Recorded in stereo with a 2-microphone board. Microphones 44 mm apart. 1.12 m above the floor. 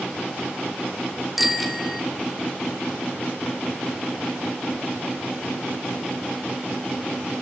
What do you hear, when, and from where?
1.4 s a bicycle bell: 5° right (ahead or behind), 3 m